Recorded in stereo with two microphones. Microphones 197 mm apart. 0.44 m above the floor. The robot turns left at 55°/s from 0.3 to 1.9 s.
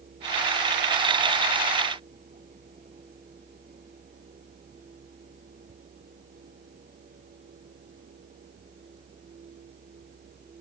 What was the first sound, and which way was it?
Only background noise.